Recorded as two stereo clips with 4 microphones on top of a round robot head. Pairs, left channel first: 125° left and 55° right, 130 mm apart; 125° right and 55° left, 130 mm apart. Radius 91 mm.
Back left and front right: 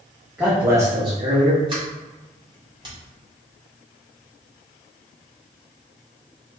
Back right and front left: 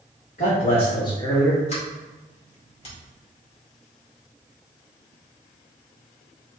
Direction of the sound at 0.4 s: 135° right.